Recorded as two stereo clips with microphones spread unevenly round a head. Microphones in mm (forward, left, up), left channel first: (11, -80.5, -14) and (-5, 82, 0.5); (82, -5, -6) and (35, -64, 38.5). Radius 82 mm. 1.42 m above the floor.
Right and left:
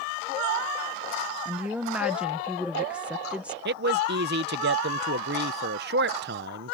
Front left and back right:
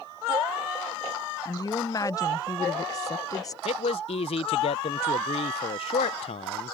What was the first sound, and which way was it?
A woman speaking, 10° left.